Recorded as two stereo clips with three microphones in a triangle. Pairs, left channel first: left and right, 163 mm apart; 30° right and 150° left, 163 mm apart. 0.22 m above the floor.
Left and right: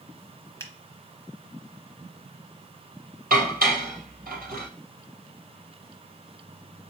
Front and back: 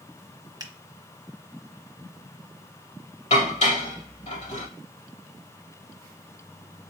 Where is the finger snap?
135° left, 0.9 m.